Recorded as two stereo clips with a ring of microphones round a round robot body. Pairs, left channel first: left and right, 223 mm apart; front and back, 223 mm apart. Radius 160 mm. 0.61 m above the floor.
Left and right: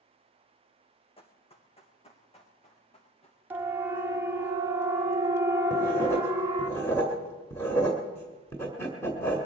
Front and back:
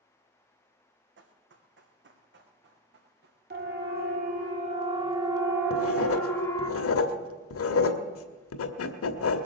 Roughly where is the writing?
Ahead.